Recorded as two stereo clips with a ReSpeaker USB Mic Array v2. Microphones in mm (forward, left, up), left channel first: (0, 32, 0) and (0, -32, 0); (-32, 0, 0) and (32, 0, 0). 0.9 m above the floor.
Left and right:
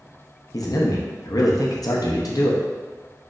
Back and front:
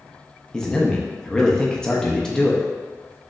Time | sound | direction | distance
0.5 | a man speaking | 105° left | 0.7 m